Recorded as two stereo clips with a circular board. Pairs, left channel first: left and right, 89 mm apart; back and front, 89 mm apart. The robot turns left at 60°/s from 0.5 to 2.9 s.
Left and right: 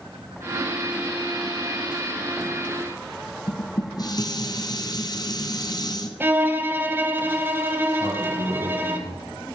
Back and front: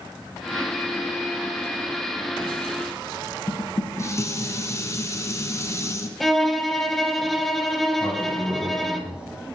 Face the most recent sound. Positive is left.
turn(degrees=-80)